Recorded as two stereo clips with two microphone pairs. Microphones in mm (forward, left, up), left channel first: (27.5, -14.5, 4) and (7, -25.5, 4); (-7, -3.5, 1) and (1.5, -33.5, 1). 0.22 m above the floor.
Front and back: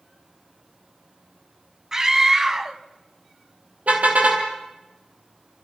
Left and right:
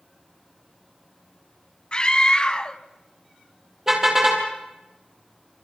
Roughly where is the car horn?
Behind right.